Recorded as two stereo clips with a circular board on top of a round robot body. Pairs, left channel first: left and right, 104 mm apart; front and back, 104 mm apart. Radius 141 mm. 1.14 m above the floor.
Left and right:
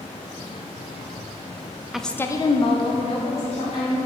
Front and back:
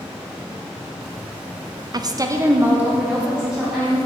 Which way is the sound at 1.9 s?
175° right.